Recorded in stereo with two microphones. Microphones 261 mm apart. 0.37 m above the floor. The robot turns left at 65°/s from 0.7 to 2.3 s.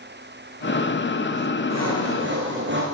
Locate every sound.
1.7 s sawing: 95° right, 6.5 m; by 2.8 s 135° right, 6.5 m